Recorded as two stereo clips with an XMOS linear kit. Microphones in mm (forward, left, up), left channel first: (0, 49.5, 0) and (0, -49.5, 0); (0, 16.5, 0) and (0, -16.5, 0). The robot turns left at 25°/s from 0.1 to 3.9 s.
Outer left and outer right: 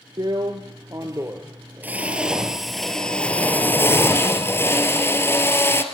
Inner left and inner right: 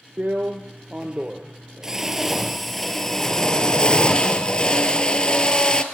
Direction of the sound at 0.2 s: 120° right.